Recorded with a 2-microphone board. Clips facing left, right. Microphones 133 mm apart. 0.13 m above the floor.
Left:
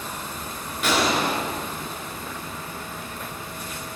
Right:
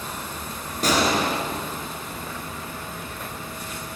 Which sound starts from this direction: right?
A gunshot, at 0.8 s.